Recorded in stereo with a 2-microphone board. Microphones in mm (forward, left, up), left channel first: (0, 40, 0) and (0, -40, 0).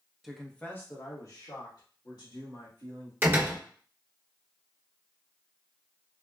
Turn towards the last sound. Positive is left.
turn(degrees=-25)  # may be behind; listen again after turning